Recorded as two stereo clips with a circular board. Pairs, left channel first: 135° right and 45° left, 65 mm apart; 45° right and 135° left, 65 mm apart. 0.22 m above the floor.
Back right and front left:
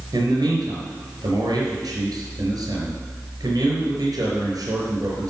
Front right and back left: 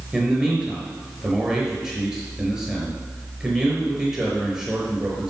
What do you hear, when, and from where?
0.1 s a man speaking: 55° left, 4.5 m